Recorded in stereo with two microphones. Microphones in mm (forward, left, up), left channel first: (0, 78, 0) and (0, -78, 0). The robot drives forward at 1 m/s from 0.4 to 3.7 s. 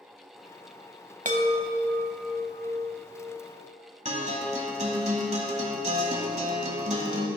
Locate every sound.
1.2 s a chime: 50° right (ahead or behind), 0.9 m; by 3.4 s 15° right (ahead or behind), 2.5 m
4.0 s a guitar: 45° right (ahead or behind), 1.5 m